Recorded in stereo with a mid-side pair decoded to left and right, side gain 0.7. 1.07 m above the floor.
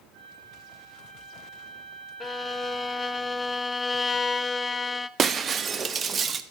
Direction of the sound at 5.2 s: 30° right.